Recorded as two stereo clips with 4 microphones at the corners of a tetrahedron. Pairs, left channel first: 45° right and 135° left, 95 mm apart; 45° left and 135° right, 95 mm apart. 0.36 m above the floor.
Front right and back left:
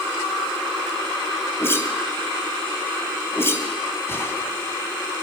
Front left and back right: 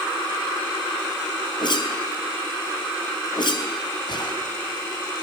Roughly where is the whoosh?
Ahead.